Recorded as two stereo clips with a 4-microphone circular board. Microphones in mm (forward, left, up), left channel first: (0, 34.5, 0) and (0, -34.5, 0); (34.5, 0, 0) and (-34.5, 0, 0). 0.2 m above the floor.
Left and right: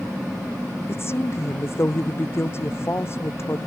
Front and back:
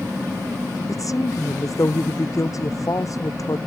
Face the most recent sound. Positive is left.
turn(degrees=35)